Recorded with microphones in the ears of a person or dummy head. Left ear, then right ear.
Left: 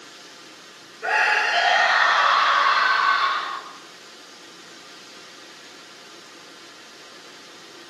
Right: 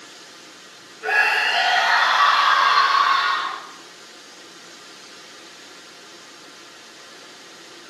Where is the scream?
25° left (ahead or behind), 7 m; by 3.6 s centre (ahead or behind), 8 m.